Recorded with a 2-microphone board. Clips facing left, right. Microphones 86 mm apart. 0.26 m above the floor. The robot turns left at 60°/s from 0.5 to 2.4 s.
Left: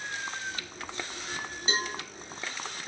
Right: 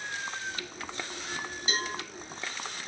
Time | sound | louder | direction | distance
1.7 | a cowbell | left 2 dB | 25° left (ahead or behind) | 2.5 m